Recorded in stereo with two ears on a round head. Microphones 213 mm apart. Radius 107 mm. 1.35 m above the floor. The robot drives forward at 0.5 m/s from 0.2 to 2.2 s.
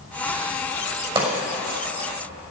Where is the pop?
25° right (ahead or behind), 6 m.